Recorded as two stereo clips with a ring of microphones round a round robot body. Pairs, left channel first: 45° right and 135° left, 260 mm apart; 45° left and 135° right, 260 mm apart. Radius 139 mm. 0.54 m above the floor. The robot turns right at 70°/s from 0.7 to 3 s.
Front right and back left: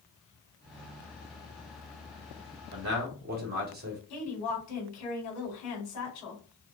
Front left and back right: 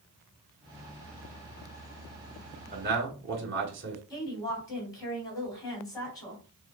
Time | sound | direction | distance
2.7 | a man speaking | 165° left | 2 m
4.1 | a woman speaking | 30° right | 2.5 m